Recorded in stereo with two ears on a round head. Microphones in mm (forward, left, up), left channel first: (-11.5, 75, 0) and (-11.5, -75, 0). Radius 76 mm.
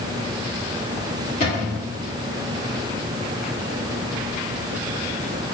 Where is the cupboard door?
45° left (ahead or behind), 2.5 m.